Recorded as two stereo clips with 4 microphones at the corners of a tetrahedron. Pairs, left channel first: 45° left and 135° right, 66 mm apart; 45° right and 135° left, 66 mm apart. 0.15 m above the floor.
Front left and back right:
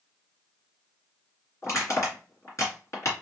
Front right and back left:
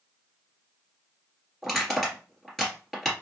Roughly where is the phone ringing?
I don't hear a phone ringing.